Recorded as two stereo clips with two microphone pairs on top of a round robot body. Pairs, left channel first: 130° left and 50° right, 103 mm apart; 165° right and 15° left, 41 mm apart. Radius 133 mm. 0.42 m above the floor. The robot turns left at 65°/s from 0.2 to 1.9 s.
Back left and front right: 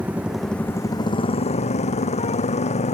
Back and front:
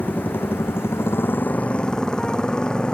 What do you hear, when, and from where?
0.0 s a motorcycle: 125° right; by 3.0 s 130° left